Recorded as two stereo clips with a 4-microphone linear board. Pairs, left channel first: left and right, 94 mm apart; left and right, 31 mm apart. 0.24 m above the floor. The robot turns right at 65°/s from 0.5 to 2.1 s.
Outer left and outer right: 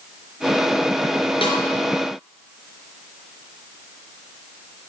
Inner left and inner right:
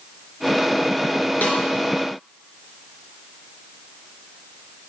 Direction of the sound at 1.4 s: 70° left (ahead or behind).